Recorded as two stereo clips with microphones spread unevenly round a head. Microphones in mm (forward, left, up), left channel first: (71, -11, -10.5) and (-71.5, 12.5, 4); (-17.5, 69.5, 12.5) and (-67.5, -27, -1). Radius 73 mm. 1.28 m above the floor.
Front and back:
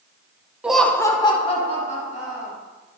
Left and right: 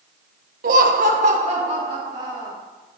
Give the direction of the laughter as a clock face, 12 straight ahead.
4 o'clock.